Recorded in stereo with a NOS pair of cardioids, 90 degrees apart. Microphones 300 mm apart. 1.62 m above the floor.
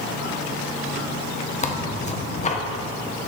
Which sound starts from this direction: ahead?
Tearing paper, at 1.6 s.